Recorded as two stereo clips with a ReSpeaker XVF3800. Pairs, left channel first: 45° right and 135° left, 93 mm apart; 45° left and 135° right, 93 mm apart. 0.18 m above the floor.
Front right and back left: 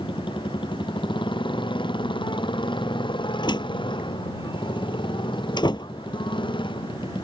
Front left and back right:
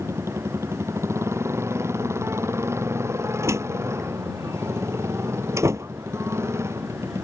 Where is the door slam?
80° right.